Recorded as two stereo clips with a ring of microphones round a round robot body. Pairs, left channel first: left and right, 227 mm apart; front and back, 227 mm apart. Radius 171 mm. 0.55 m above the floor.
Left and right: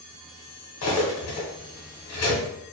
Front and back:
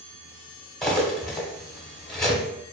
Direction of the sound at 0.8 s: 90° left.